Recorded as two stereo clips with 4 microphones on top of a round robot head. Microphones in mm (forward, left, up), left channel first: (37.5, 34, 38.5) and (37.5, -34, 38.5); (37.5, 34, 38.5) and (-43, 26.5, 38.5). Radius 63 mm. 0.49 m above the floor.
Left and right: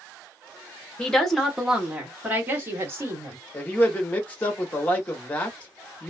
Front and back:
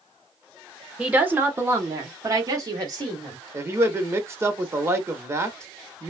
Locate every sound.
1.0 s a woman speaking: 135° left, 0.9 m; by 3.4 s 145° right, 1.8 m
3.5 s a man speaking: 145° left, 0.9 m